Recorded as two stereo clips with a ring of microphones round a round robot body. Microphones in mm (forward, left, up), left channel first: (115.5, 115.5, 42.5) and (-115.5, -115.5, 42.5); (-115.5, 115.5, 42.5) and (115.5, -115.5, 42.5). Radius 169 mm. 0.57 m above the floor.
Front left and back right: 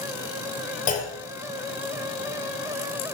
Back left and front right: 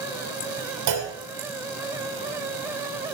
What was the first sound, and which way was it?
A clunk, 20° right.